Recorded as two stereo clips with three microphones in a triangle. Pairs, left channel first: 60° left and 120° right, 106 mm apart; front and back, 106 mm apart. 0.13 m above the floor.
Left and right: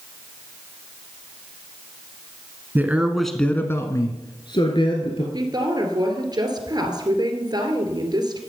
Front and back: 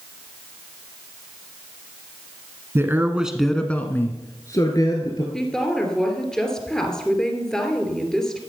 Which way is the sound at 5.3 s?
85° right.